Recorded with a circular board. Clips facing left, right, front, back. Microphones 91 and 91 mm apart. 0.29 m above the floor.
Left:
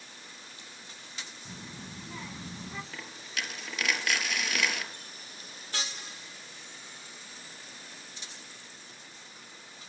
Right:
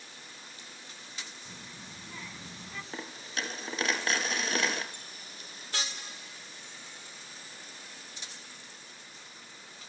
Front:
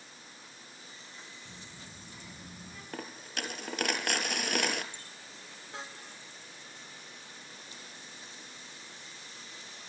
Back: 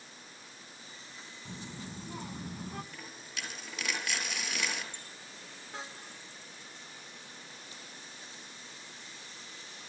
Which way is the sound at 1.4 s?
160° left.